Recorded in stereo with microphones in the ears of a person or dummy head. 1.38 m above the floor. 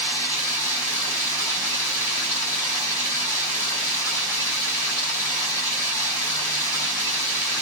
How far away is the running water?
About 2.5 m.